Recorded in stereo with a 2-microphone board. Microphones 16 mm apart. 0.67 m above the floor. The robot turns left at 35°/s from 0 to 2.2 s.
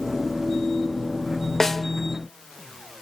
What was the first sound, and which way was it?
A snare drum, 25° left (ahead or behind).